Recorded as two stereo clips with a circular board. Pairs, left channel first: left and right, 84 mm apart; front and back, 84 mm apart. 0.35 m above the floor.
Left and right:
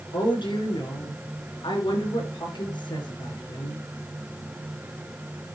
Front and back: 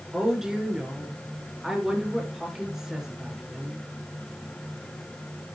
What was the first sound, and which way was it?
A woman speaking, 95° left.